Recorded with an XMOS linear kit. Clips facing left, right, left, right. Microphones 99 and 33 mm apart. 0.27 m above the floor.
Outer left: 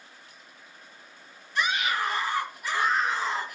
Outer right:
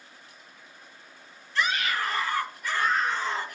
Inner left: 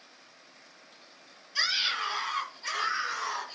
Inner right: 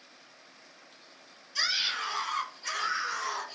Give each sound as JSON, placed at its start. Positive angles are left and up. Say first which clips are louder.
{"t": 1.6, "sound": "a scream", "louder": "even, inner left 1 dB", "side_deg": 15, "distance_m": 6.0}